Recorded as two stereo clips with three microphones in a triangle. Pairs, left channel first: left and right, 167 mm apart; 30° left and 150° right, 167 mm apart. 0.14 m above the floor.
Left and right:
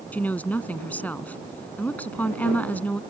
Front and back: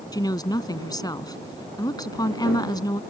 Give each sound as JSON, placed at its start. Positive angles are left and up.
{"t": 0.1, "sound": "a woman speaking", "azimuth_deg": 25}